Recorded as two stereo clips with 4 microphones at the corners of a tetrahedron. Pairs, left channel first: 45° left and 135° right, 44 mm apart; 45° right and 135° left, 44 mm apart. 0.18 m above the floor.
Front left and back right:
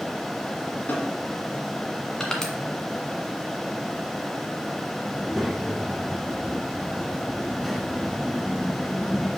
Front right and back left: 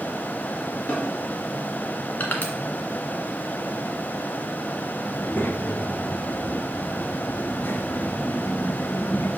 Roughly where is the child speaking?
Ahead right.